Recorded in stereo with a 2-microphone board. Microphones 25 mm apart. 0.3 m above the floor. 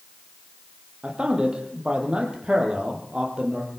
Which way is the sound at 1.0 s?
40° right (ahead or behind).